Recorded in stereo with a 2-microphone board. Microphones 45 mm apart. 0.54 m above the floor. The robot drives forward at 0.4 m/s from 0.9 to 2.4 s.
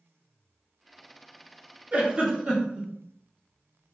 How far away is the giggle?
About 0.5 m.